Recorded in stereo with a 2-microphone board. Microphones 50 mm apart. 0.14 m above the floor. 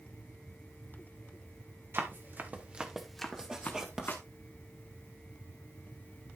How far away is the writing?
About 1.9 m.